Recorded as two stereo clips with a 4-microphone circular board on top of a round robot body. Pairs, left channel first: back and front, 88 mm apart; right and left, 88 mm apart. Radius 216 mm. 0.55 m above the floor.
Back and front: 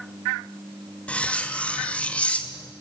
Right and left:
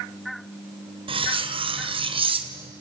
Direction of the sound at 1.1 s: 105° left.